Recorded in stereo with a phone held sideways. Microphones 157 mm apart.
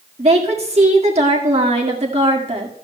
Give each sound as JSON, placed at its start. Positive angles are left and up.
{"t": 0.2, "sound": "a woman speaking", "side_deg": -45, "distance_m": 1.8}